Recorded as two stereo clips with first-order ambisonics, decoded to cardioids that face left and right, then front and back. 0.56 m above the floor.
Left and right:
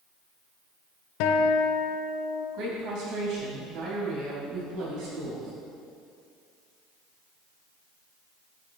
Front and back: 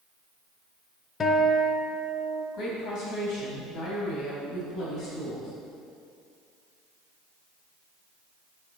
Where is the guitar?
70° left, 0.7 m.